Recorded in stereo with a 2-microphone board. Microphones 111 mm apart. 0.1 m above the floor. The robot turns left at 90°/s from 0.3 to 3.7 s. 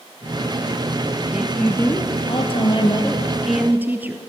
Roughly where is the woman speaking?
Behind.